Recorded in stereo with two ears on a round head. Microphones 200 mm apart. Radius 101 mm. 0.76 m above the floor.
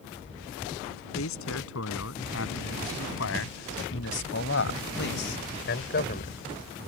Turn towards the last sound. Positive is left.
turn(degrees=45)  # may be behind; listen again after turning